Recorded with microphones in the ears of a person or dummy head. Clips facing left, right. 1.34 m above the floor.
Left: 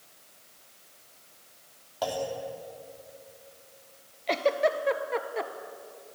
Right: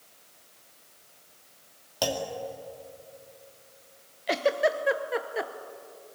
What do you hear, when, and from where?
2.0 s a clunk: 35° right (ahead or behind), 2.5 m
4.3 s a giggle: 10° right (ahead or behind), 1.2 m